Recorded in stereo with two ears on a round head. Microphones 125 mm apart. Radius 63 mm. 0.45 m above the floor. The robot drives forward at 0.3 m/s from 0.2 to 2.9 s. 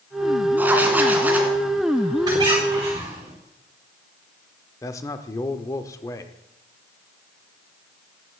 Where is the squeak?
30° right (ahead or behind), 4.5 m.